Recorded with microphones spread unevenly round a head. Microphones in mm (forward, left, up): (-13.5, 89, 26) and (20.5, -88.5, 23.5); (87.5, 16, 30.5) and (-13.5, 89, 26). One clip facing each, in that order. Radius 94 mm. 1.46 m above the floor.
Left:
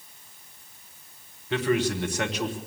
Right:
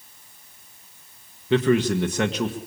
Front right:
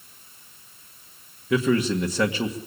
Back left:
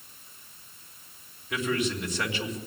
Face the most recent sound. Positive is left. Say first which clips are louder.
# right 5 dB, front right 7 dB
turn(degrees=-60)